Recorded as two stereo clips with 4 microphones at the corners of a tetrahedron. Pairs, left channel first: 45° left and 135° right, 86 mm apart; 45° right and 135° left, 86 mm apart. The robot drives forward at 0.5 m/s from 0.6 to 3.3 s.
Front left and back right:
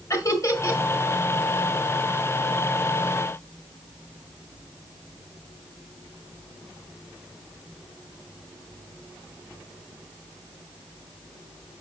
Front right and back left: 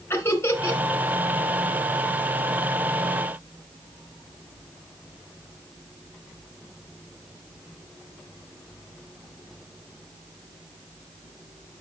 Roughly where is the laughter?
Ahead.